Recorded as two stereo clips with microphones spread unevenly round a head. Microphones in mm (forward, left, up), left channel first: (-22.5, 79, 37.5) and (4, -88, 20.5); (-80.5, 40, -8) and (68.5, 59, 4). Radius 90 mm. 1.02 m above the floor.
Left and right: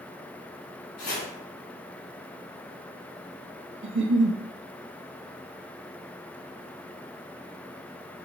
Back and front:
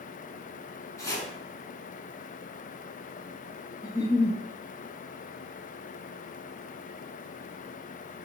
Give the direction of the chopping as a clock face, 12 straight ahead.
8 o'clock.